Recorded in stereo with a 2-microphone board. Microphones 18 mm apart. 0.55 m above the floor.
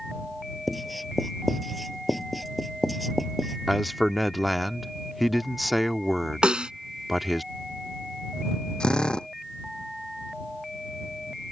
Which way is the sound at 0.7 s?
Centre (ahead or behind).